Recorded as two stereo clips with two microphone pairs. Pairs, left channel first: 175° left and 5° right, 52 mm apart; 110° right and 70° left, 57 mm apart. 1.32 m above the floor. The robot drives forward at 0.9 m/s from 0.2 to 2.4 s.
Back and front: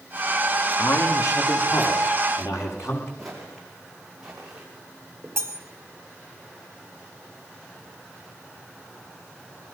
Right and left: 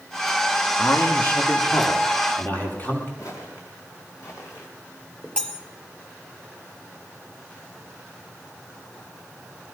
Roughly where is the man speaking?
Behind.